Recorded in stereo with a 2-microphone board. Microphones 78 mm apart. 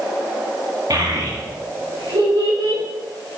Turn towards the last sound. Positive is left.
turn(degrees=-85)